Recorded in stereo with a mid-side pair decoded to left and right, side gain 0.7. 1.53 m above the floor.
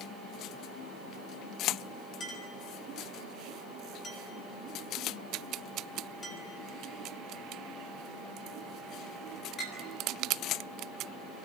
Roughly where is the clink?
Ahead left.